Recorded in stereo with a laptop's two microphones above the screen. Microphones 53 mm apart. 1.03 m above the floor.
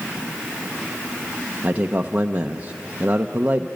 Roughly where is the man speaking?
Right.